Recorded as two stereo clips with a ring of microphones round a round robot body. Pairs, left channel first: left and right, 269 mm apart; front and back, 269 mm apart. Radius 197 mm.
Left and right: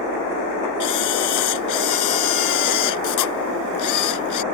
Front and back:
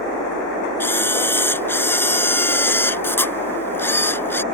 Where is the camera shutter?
80° left.